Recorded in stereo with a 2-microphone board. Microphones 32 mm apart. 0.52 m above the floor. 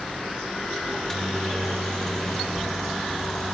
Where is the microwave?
20° left (ahead or behind), 0.8 m.